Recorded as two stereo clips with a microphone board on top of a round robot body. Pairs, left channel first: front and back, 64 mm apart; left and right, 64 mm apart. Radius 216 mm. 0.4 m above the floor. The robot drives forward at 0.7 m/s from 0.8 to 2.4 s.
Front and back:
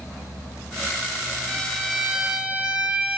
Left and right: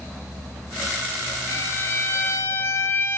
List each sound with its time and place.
1.5 s a violin: 70° left, 1.3 m; by 3.2 s 115° left, 1.3 m